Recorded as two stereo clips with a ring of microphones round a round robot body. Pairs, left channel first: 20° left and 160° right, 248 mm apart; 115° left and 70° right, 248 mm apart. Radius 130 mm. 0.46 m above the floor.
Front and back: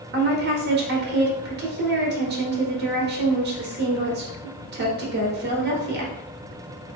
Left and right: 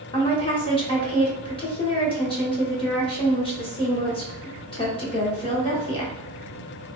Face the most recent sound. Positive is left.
turn(degrees=175)